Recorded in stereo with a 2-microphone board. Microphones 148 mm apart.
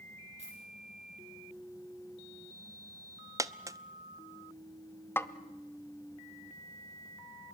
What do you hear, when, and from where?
0.4 s a dropped coin: 45° right (ahead or behind), 5.5 m
3.4 s a dropped coin: 20° right (ahead or behind), 0.5 m
5.2 s a snare drum: 15° left (ahead or behind), 0.7 m